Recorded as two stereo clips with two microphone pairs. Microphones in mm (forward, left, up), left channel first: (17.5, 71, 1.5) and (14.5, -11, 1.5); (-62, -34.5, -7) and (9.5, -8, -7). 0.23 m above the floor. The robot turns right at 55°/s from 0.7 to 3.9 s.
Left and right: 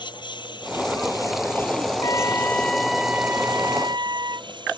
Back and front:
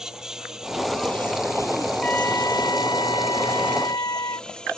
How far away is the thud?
I don't hear a thud.